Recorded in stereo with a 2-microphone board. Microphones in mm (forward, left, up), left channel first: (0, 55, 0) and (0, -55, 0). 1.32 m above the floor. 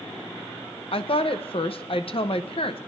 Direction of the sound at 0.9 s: 55° left (ahead or behind).